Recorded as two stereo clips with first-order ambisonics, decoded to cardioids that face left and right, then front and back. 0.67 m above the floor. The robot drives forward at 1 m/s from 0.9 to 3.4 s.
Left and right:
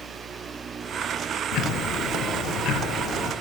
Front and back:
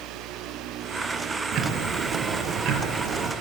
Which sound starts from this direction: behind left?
Ticking, at 1.5 s.